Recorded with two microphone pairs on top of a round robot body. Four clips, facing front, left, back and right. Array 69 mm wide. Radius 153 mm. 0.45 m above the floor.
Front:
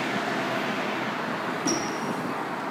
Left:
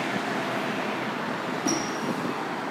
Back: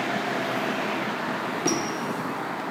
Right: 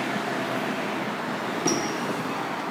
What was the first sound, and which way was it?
A squeak, 155° right.